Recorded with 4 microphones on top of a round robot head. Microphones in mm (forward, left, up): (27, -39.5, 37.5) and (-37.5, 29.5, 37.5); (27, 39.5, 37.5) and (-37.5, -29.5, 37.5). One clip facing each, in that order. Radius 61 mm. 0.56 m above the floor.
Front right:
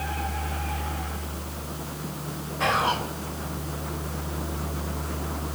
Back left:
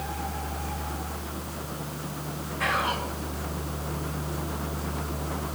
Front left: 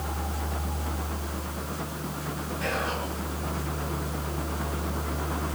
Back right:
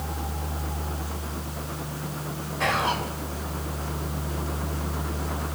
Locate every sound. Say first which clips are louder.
2.6 s whispering: front right 4 dB, back right 6 dB; 105° right, 4.5 m